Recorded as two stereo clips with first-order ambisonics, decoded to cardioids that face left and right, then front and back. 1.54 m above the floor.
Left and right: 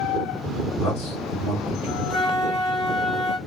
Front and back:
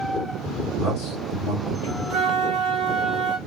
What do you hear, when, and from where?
0.8 s a man speaking: 65° left, 1.7 m
2.1 s a flute: 145° left, 0.7 m